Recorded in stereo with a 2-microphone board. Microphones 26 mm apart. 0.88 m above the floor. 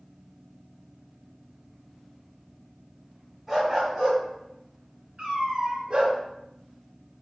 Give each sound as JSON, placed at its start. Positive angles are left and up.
{"t": 3.5, "sound": "a dog barking", "side_deg": -15, "distance_m": 1.7}
{"t": 5.2, "sound": "a cat meowing", "side_deg": -35, "distance_m": 1.1}